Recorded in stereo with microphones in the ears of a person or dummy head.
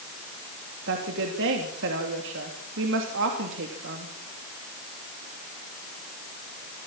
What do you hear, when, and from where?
0.9 s a woman speaking: 65° right (ahead or behind), 3 m